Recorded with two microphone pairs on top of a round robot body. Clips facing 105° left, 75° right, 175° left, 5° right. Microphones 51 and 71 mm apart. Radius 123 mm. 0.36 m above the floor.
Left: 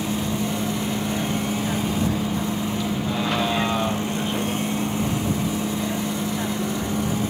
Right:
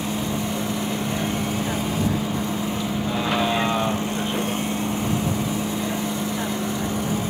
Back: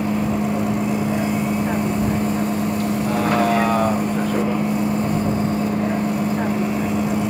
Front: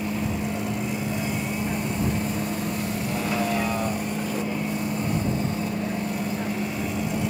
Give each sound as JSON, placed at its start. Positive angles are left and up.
{"t": 0.0, "sound": "a vehicle", "azimuth_deg": -160}